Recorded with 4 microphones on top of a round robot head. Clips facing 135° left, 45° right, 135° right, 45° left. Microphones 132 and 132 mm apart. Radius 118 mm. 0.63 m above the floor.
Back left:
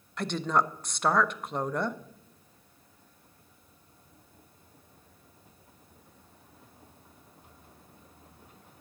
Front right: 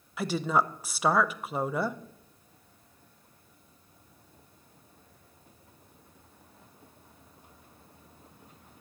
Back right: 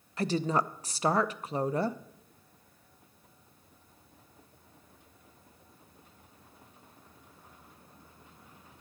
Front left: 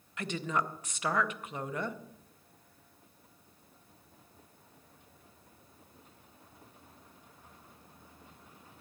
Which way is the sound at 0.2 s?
125° right.